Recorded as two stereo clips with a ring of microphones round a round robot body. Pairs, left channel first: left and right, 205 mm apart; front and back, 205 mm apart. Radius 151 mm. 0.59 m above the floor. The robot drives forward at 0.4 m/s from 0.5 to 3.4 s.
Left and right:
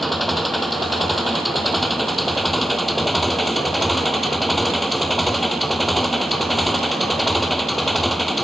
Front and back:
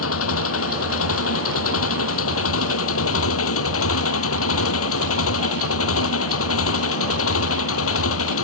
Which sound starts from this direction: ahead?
An engine running, at 0.0 s.